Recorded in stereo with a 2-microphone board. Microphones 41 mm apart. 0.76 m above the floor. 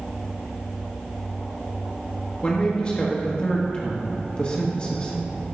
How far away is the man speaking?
About 1.2 m.